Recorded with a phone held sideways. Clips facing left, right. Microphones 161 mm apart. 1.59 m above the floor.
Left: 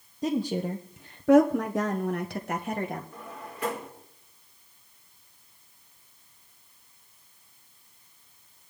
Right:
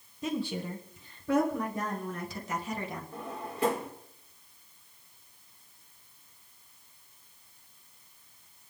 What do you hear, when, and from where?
0.2 s a woman speaking: 35° left (ahead or behind), 1.3 m; by 3.0 s 50° left (ahead or behind), 1.7 m
3.1 s a drawer: 30° right (ahead or behind), 2.5 m